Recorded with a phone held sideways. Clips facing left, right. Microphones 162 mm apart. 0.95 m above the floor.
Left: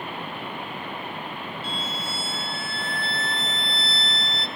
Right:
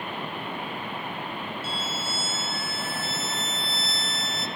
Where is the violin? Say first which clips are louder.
Even; 5° right (ahead or behind), 0.7 m.